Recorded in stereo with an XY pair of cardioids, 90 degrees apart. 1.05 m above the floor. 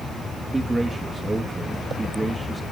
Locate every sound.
0.5 s a man speaking: 20° right, 1.2 m